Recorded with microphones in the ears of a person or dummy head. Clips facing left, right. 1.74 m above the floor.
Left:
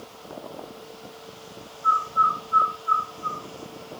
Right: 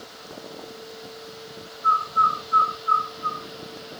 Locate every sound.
1.8 s a bird: 40° right (ahead or behind), 6 m